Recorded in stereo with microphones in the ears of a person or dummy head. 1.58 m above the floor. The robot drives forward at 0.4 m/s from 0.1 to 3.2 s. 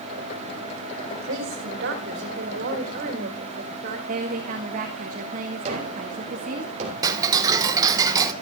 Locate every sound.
1.1 s a woman speaking: 70° right (ahead or behind), 2.5 m; by 4.0 s 55° right (ahead or behind), 3 m
4.1 s a woman speaking: 50° right (ahead or behind), 1.5 m
5.7 s a gunshot: 40° right (ahead or behind), 3.5 m
7.0 s ticking: 25° right (ahead or behind), 1.0 m